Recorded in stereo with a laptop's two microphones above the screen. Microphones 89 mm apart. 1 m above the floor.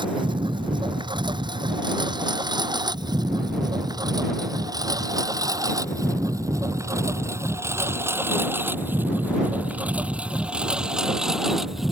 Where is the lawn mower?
60° right (ahead or behind); by 11.9 s centre (ahead or behind).